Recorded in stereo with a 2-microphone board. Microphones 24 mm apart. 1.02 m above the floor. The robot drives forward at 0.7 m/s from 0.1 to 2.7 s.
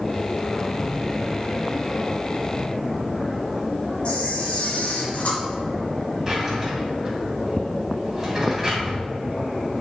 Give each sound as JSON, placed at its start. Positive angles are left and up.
{"t": 4.0, "sound": "a camera shutter", "side_deg": 65, "distance_m": 1.8}
{"t": 6.3, "sound": "a drawer", "side_deg": -15, "distance_m": 2.5}